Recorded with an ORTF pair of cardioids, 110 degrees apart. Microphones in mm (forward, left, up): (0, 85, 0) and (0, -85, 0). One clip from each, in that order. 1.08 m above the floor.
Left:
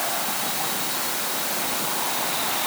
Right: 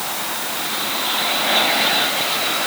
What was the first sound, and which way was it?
Only background noise.